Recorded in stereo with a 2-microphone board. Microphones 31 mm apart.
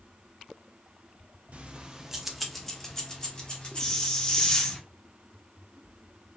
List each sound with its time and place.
1.5 s keys jangling: 45° right (ahead or behind), 0.5 m; by 4.8 s 35° left (ahead or behind), 1.6 m
3.8 s a hiss: 20° left (ahead or behind), 0.5 m